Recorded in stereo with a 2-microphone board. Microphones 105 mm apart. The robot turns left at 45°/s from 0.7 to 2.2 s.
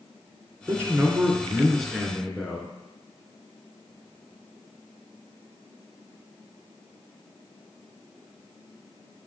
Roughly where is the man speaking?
Behind right.